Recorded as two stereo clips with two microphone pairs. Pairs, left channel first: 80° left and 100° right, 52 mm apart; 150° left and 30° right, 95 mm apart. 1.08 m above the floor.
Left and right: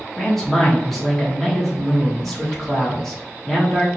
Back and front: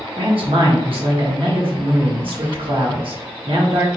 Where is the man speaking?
5° right, 1.4 m.